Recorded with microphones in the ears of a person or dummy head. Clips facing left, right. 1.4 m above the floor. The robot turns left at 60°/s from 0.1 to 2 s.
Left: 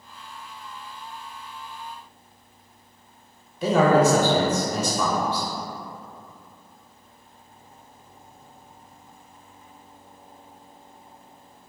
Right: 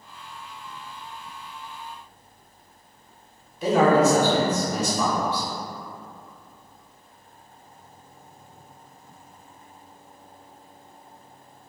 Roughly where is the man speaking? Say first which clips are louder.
Even; left.